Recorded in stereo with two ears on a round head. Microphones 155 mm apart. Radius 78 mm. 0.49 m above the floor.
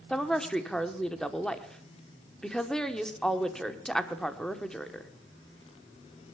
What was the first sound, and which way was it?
A woman speaking, 5° left (ahead or behind).